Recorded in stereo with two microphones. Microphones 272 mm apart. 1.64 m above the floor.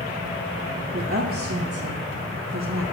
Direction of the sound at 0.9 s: 45° right (ahead or behind).